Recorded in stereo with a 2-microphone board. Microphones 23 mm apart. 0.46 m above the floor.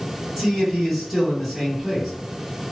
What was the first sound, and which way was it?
A man speaking, 10° right (ahead or behind).